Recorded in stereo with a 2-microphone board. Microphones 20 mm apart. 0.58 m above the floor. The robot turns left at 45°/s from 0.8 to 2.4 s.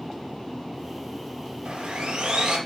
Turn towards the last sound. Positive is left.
turn(degrees=-120)